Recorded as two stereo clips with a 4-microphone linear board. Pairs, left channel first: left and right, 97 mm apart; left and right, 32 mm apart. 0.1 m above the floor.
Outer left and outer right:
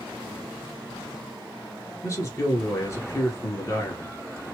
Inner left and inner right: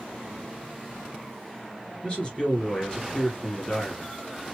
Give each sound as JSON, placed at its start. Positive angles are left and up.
{"t": 2.0, "sound": "a man speaking", "side_deg": 30, "distance_m": 1.7}